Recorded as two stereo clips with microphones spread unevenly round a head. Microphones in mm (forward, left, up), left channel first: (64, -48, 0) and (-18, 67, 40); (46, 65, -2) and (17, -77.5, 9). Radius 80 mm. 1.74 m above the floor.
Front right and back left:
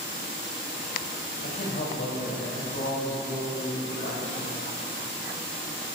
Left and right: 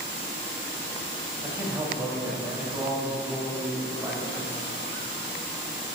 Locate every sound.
1.4 s a man speaking: 30° right, 4.5 m; by 4.6 s 20° right, 6 m